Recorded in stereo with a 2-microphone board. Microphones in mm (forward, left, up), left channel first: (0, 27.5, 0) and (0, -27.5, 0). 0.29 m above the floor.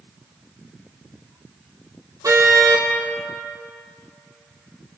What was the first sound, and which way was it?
A car horn, 70° right (ahead or behind).